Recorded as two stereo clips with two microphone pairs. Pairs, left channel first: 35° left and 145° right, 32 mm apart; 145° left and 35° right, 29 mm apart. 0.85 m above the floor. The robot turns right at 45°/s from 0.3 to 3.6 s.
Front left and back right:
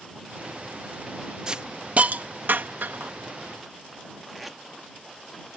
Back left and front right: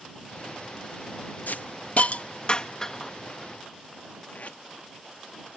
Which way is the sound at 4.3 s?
130° left.